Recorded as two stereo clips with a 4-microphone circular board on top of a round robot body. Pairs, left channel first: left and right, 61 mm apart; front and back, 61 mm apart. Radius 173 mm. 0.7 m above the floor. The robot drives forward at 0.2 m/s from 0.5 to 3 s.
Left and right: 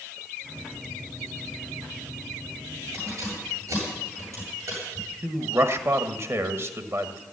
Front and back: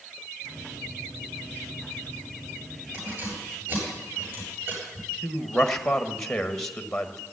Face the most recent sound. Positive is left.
turn(degrees=-80)